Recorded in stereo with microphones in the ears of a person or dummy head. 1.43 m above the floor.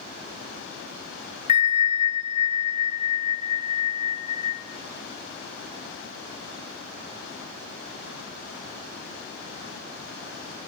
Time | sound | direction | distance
1.5 | a bell | 35° left (ahead or behind) | 0.6 m